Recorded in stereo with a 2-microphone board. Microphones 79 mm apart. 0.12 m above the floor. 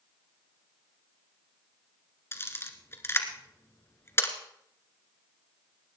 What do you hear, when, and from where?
2.3 s a camera shutter: 30° left (ahead or behind), 1.5 m